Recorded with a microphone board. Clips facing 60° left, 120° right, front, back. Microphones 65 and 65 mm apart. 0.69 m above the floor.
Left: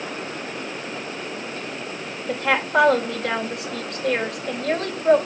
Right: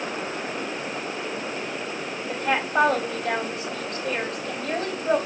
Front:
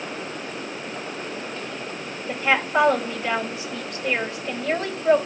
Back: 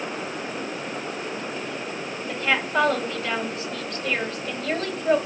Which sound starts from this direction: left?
A woman speaking, at 2.3 s.